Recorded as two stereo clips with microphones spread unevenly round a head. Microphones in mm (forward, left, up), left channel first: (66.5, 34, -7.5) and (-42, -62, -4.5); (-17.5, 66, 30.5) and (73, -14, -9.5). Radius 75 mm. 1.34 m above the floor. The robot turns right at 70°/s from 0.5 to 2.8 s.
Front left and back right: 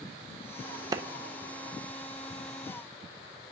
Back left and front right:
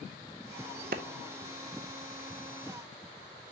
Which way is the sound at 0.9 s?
80° right.